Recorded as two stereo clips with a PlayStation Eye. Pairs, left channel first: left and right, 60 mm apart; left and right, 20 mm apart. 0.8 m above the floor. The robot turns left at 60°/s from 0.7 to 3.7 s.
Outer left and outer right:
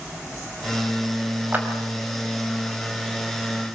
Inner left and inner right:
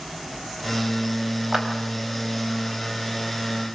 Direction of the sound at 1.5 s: 30° right (ahead or behind).